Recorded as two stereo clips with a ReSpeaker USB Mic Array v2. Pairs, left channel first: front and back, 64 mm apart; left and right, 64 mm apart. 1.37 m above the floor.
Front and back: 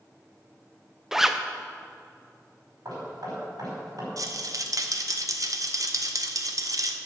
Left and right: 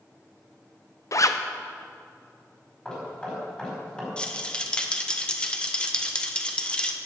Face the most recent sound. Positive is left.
turn(degrees=165)